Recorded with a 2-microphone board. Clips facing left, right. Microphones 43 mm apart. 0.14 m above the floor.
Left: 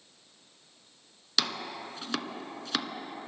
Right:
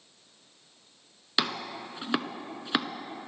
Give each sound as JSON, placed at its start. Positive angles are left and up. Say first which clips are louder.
{"t": 1.4, "sound": "chopping", "louder": "right 2 dB", "side_deg": -20, "distance_m": 1.1}